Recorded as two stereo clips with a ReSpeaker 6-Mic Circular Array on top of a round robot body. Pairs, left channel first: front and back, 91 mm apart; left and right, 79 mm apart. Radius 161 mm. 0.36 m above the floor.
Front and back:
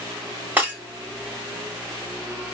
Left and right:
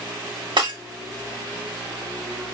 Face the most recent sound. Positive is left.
turn(degrees=-110)